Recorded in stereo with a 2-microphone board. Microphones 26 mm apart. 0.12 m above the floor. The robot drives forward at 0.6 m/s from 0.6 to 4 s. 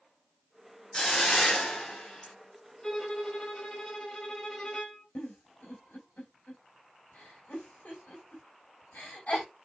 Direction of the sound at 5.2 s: 65° left (ahead or behind).